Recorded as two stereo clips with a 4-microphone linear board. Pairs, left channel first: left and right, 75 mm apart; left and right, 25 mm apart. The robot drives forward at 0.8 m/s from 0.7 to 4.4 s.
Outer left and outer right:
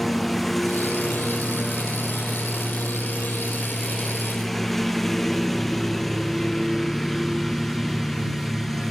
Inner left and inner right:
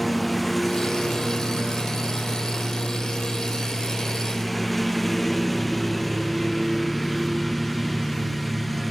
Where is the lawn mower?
5° left (ahead or behind).